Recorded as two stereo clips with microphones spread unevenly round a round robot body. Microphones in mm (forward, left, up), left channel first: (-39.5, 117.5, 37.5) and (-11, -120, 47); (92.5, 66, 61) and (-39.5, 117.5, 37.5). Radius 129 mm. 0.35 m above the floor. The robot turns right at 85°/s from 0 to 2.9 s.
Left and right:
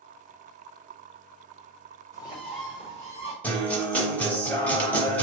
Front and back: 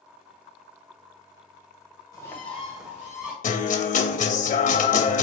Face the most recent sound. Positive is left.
turn(degrees=15)